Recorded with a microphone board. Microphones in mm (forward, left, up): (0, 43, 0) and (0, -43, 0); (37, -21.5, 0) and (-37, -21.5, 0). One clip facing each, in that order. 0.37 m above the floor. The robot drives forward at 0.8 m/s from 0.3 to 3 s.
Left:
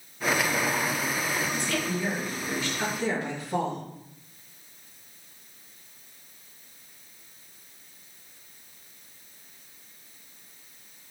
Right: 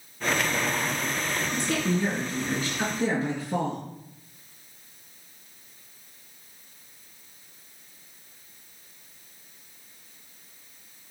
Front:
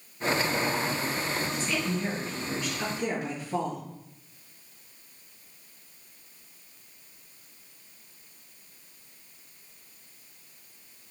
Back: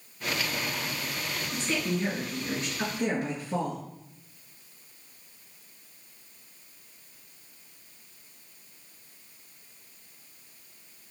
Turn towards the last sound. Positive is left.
turn(degrees=-135)